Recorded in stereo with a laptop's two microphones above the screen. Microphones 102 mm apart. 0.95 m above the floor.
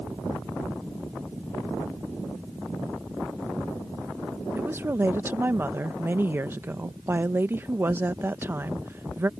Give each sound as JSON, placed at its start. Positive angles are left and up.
{"t": 4.5, "sound": "a woman speaking", "side_deg": -20}